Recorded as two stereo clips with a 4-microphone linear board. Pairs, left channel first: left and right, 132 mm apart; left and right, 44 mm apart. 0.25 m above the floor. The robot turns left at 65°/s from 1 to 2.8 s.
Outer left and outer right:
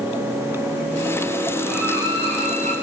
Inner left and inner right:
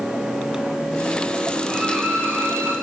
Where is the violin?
Straight ahead, 8.5 m; by 2.7 s 70° right, 8.5 m.